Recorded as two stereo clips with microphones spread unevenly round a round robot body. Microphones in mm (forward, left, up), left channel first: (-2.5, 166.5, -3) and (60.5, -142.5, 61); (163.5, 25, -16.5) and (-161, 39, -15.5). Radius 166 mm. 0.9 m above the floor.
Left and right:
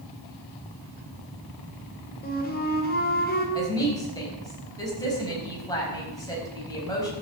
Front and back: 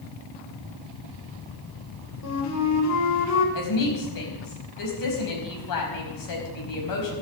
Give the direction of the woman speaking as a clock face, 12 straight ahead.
11 o'clock.